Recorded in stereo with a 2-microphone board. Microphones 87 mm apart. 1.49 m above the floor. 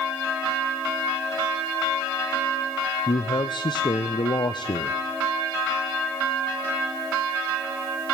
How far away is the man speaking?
About 0.5 m.